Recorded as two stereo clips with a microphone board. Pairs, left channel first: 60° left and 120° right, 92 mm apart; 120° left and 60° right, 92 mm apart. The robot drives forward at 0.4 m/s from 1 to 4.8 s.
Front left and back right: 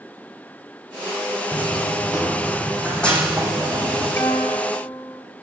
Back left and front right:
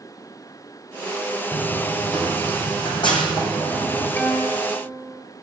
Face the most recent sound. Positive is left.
turn(degrees=85)